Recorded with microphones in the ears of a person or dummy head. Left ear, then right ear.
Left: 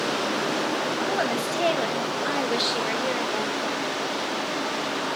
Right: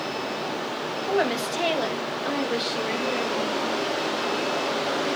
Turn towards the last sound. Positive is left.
turn(degrees=40)  # may be behind; listen again after turning